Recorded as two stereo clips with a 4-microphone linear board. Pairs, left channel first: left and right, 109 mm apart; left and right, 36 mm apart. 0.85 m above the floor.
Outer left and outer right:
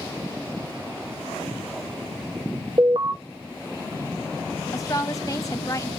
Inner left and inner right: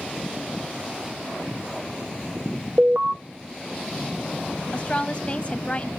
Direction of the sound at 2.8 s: 55° right (ahead or behind).